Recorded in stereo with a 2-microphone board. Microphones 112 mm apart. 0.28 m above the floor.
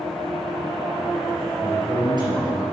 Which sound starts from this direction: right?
A man speaking, at 1.6 s.